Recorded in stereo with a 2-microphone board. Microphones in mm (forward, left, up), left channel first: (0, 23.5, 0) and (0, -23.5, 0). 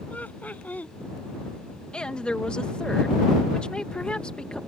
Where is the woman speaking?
20° left (ahead or behind).